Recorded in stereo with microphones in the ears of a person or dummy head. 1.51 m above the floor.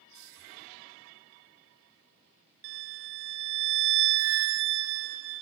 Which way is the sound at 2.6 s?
60° right (ahead or behind).